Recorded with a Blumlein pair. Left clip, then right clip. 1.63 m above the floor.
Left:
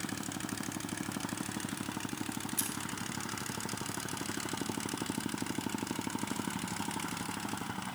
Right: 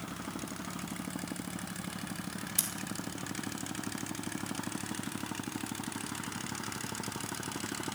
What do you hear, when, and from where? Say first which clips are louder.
2.6 s scissors: right 4 dB; 65° right, 1.7 m